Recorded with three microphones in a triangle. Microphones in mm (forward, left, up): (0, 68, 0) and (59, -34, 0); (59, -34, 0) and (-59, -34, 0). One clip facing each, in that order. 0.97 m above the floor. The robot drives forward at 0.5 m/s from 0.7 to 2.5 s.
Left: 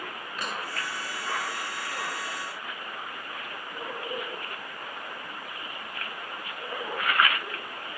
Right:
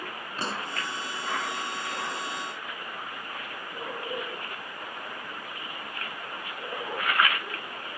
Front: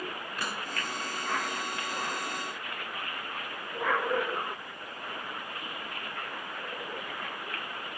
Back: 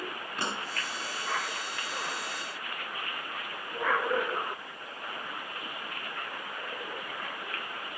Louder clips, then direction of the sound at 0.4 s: Right 2 dB, back 3 dB; 115° right.